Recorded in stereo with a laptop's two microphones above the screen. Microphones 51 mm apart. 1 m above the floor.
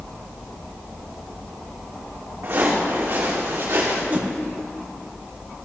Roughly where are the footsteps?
Right.